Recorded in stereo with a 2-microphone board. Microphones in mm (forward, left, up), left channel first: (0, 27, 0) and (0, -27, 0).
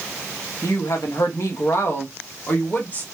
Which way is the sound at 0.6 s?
65° left (ahead or behind).